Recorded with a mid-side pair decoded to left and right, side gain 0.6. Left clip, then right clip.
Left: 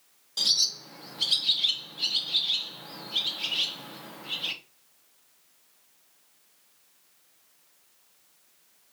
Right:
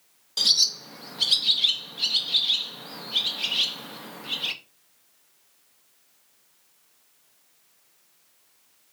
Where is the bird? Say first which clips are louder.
Right 4 dB; 25° right, 0.8 m.